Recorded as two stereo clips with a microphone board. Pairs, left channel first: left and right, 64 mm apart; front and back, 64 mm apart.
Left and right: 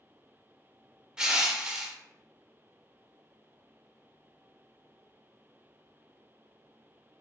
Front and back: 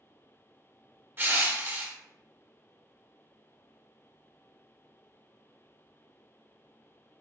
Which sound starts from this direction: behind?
Crushing, at 1.2 s.